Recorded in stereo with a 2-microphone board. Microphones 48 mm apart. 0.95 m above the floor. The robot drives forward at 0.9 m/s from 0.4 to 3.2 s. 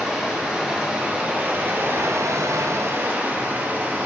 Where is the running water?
20° right (ahead or behind), 1.9 m; by 4.1 s 40° right (ahead or behind), 1.0 m.